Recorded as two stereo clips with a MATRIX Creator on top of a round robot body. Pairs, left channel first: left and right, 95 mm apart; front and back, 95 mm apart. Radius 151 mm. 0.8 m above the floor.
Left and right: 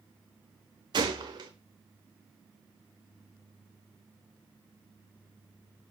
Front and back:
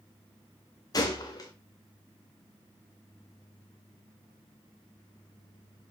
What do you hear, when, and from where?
0.9 s a gunshot: 55° right, 0.7 m